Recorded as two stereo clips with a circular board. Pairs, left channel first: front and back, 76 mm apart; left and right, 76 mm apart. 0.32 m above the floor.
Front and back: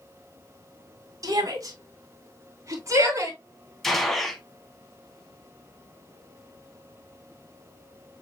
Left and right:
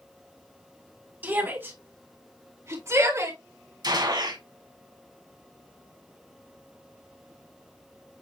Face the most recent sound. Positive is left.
turn(degrees=-85)